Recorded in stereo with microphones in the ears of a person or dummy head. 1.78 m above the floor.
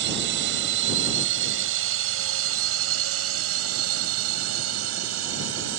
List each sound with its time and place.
0.0 s a drone: 60° right (ahead or behind); by 5.8 s 85° right